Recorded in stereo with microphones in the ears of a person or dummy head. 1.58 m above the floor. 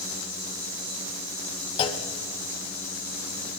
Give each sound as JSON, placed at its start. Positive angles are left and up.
{"t": 1.8, "sound": "a clunk", "side_deg": 30, "distance_m": 0.6}